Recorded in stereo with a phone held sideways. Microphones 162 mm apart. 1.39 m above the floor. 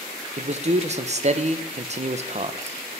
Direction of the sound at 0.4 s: 45° right (ahead or behind).